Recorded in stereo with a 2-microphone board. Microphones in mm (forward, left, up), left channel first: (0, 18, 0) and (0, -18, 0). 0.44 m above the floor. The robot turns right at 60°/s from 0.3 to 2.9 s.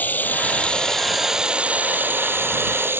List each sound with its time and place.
0.0 s running water: 130° left; by 3.0 s 75° right